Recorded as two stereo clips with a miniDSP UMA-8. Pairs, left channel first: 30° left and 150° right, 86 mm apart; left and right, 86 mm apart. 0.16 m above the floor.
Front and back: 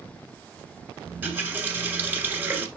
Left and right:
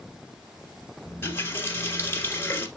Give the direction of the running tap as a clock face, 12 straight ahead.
7 o'clock.